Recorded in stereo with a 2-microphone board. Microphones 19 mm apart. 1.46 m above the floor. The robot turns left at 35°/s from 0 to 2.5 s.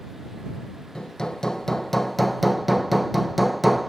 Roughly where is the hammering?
Ahead left.